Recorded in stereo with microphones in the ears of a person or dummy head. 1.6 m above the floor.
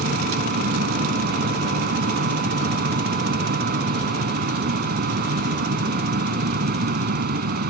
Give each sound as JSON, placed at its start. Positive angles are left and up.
{"t": 0.0, "sound": "a machine running", "side_deg": -50}